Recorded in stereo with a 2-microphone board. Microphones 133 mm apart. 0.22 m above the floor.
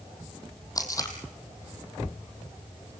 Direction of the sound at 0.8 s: 25° left (ahead or behind).